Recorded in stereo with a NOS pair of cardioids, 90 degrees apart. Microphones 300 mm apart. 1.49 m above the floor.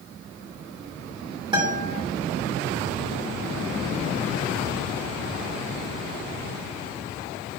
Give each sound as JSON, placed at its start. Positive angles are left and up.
{"t": 1.5, "sound": "a guitar", "azimuth_deg": -15, "distance_m": 3.0}